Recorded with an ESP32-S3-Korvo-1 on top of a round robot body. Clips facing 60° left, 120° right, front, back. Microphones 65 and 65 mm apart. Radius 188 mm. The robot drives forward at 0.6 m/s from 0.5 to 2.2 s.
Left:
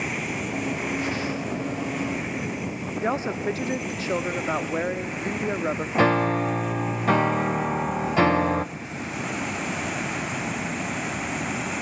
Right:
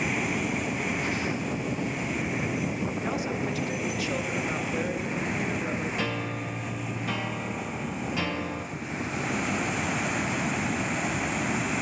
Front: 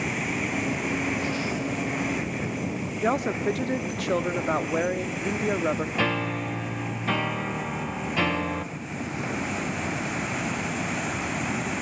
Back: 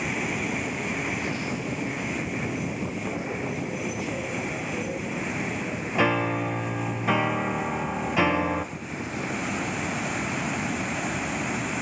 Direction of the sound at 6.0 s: 100° left.